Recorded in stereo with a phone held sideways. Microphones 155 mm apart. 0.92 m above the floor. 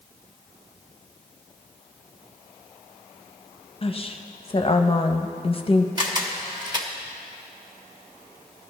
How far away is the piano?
No piano in this recording.